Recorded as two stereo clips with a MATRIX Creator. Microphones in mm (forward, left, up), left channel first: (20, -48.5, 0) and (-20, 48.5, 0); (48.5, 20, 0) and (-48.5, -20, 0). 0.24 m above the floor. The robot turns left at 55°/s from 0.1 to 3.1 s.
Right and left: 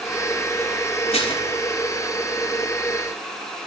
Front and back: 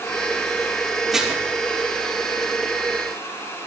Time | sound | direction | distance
1.1 | dishes clattering | 70° right | 4 m